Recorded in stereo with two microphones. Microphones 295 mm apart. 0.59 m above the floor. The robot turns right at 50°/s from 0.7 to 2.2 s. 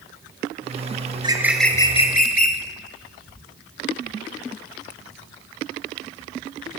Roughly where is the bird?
Ahead.